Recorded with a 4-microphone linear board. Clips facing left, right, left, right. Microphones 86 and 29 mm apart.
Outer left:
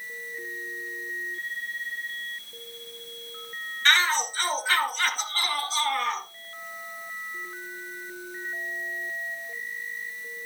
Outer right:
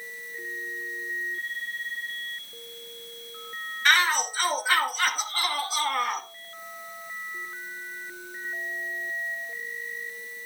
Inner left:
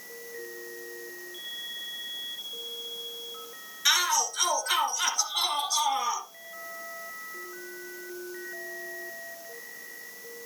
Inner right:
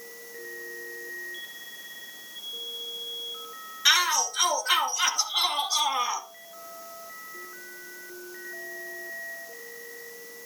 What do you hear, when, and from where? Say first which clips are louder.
3.9 s a shout: outer right 1 dB, inner right 3 dB; 10° right (ahead or behind), 3.5 m